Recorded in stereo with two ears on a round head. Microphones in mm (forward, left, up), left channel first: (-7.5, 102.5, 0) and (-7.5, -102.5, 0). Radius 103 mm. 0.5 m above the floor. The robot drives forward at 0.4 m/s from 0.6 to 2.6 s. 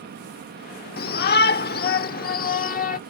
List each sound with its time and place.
1.0 s a shout: 45° left (ahead or behind); by 3.0 s 40° left (ahead or behind)